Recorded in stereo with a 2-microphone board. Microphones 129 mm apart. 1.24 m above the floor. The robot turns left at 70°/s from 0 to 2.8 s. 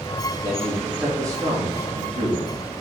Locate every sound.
0.4 s a man speaking: 35° left, 3 m; by 2.5 s 105° right, 3 m